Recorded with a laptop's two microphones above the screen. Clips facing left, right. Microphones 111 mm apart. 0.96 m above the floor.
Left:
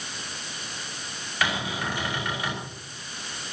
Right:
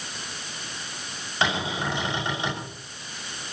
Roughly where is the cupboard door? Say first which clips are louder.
Right 2 dB; right.